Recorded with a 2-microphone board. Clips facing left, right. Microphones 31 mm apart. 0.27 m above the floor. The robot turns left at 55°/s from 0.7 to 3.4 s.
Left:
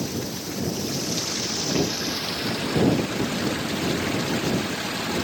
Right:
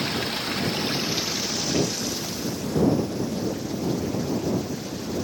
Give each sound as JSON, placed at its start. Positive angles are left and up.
{"t": 0.0, "sound": "running water", "azimuth_deg": -130}